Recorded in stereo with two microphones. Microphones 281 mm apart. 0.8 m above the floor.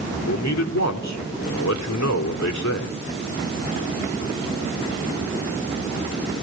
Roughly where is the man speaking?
Left.